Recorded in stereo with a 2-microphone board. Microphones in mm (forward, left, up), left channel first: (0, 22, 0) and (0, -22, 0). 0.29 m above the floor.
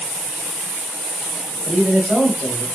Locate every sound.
1.6 s a man speaking: 40° right (ahead or behind), 1.7 m